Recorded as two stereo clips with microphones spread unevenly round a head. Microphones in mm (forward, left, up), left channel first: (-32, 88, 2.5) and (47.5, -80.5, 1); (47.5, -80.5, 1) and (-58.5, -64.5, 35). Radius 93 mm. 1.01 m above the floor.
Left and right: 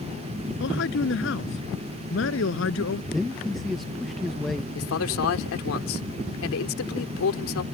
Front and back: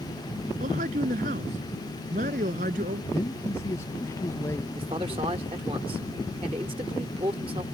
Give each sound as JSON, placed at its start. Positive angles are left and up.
{"t": 0.6, "sound": "a man speaking", "azimuth_deg": 145}
{"t": 3.1, "sound": "a man speaking", "azimuth_deg": 25}
{"t": 4.8, "sound": "a man speaking", "azimuth_deg": 110}